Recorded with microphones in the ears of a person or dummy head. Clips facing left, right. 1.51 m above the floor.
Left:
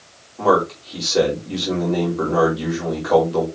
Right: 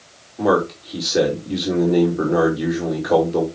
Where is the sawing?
No sawing in this recording.